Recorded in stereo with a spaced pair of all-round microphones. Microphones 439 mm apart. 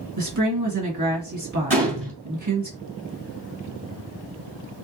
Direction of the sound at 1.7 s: 65° right (ahead or behind).